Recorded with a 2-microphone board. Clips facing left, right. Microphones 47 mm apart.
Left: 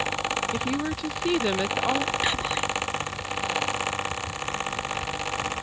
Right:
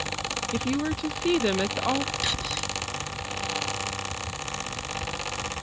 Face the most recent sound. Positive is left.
turn(degrees=25)  # may be behind; listen again after turning